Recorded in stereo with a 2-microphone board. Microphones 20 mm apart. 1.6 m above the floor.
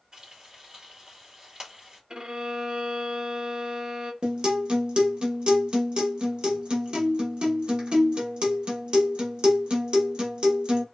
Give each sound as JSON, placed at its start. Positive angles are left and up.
{"t": 0.1, "sound": "frying", "side_deg": -40, "distance_m": 2.0}
{"t": 2.1, "sound": "a violin", "side_deg": -40, "distance_m": 0.7}
{"t": 4.2, "sound": "a guitar", "side_deg": -55, "distance_m": 0.8}